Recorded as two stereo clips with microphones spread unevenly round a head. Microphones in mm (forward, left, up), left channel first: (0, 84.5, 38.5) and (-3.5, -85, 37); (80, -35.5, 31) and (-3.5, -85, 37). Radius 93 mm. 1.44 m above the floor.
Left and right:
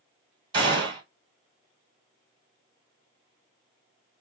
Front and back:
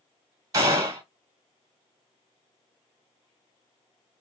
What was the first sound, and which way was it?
A gunshot, 140° right.